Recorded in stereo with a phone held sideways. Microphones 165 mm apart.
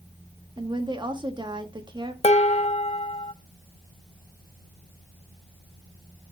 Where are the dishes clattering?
40° left (ahead or behind), 0.7 m.